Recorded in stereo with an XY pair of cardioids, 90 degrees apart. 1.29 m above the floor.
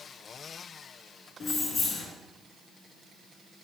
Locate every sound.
1.4 s keys jangling: 60° left, 1.2 m